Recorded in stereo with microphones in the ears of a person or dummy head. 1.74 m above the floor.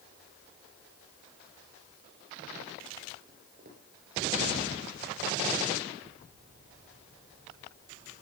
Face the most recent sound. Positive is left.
turn(degrees=-50)  # may be behind; listen again after turning